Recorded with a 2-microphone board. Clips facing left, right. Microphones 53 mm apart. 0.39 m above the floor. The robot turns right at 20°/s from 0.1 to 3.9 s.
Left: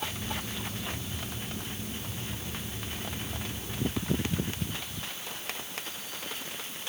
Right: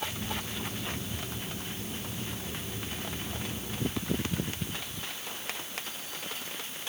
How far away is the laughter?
No laughter in this recording.